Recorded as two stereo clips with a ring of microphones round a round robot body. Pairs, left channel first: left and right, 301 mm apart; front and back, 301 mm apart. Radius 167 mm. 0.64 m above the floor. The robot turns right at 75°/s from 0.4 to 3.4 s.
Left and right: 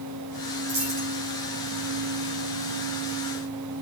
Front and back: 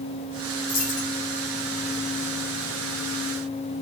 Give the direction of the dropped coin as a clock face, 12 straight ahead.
2 o'clock.